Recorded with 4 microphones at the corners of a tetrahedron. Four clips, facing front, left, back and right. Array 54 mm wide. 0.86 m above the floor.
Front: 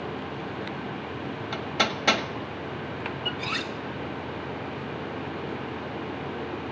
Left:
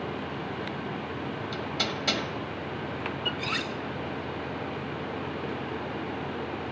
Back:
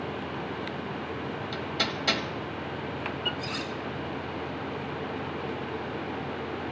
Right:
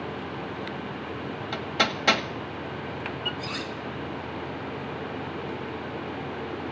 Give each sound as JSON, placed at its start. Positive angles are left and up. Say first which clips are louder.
{"t": 1.5, "sound": "hammering", "louder": "right 7 dB, front 5 dB", "azimuth_deg": -45, "distance_m": 1.1}
{"t": 3.4, "sound": "cutlery clinking", "louder": "left 2 dB, front 3 dB", "azimuth_deg": 45, "distance_m": 1.3}